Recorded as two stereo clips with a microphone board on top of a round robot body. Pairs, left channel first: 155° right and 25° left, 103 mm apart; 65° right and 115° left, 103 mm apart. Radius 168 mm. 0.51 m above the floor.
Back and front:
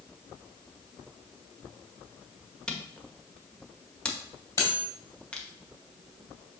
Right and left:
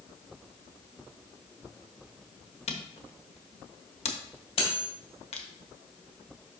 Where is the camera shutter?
75° right, 1.3 m.